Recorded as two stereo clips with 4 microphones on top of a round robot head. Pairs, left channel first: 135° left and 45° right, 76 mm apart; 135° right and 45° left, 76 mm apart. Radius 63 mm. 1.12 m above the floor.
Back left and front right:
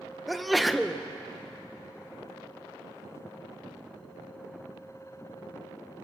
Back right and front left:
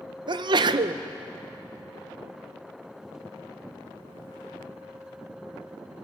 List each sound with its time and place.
0.3 s a sneeze: 40° left, 0.8 m